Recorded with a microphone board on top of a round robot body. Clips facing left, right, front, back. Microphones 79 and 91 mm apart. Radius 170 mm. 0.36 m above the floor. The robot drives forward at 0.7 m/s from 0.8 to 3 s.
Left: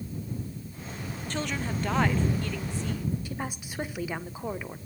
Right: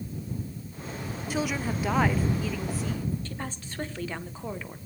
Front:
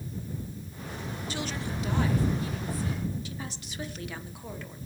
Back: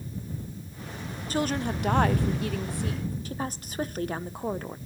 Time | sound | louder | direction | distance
1.3 | a woman speaking | right 3 dB, back 9 dB | 165° right | 1.0 m
3.2 | a woman speaking | left 2 dB, back 6 dB | 165° left | 1.5 m